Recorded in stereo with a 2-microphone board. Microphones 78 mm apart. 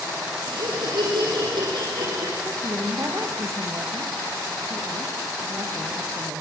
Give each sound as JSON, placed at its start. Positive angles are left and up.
{"t": 0.5, "sound": "laughter", "side_deg": -80, "distance_m": 6.5}
{"t": 2.4, "sound": "a woman speaking", "side_deg": -35, "distance_m": 5.5}